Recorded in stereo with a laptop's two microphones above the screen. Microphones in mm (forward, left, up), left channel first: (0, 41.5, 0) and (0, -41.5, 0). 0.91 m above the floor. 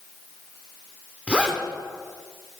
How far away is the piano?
I don't hear a piano.